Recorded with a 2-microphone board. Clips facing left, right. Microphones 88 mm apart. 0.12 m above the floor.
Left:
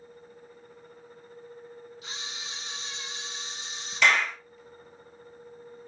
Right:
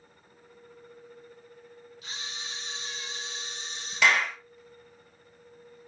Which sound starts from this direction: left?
A camera shutter, at 2.0 s.